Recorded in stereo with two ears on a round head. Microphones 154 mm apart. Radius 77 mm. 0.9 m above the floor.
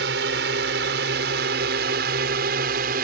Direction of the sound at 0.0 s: 70° right (ahead or behind).